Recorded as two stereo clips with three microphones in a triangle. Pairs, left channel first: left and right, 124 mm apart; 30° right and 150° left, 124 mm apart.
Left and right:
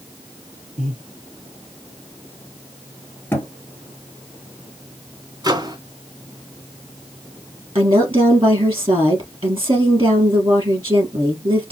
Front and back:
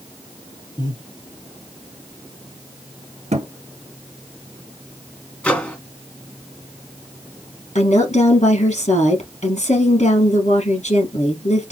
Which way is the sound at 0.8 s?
80° right.